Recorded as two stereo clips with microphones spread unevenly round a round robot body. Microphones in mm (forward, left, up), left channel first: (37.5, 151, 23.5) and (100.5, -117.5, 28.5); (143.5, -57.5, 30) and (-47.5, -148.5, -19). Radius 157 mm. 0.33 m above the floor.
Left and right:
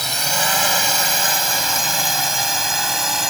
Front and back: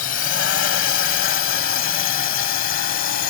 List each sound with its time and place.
0.0 s a drone: 15° left; by 3.3 s 10° left